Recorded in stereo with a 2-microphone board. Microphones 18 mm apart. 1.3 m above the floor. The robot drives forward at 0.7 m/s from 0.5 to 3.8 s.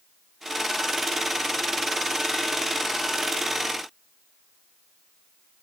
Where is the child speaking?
No child speaking in this recording.